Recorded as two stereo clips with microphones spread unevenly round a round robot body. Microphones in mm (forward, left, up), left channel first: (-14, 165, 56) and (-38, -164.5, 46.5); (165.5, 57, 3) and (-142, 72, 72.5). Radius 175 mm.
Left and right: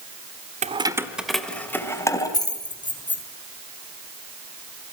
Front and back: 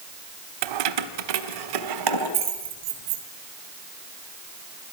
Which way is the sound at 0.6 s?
165° right.